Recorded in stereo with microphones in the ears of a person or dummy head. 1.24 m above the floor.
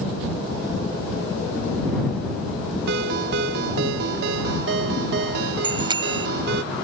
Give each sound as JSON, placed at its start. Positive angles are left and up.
{"t": 2.9, "sound": "a ringtone", "side_deg": -70}
{"t": 5.6, "sound": "a bicycle bell", "side_deg": -25}